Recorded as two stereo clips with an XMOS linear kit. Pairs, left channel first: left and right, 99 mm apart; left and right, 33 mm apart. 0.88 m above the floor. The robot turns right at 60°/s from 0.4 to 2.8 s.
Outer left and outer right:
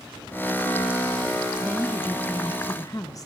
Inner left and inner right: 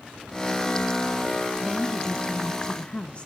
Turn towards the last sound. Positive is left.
turn(degrees=60)